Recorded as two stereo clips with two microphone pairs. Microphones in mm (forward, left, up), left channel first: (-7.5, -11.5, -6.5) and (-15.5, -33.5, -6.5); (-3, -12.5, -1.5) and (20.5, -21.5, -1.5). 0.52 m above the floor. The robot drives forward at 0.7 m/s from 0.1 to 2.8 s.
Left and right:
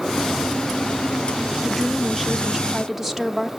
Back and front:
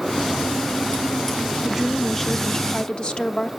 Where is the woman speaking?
20° right, 0.7 m; by 3.5 s 170° right, 0.8 m.